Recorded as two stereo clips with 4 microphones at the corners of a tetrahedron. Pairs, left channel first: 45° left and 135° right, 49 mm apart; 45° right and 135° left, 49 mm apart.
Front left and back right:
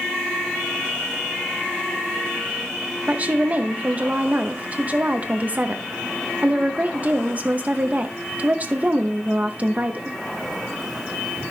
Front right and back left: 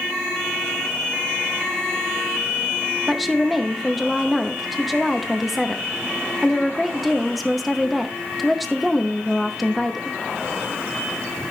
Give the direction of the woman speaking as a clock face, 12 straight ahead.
5 o'clock.